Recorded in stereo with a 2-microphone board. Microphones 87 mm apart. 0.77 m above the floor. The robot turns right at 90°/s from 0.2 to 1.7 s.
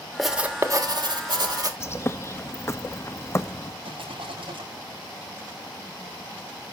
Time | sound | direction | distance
0.2 | writing | straight behind | 1.6 m
1.8 | a bird | 30° left (ahead or behind) | 0.7 m
3.8 | a rattle | 80° right | 7 m